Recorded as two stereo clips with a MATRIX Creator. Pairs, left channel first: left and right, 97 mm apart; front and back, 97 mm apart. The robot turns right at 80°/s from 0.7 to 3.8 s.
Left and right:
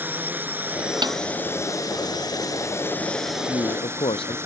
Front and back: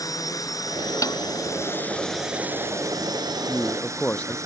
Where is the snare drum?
55° right; by 1.2 s 45° right.